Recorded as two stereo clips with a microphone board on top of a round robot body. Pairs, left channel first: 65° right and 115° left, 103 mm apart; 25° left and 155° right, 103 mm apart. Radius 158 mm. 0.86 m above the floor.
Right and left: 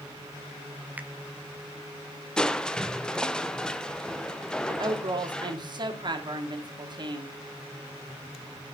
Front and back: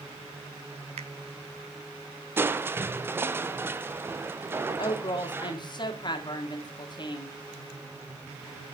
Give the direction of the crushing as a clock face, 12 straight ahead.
5 o'clock.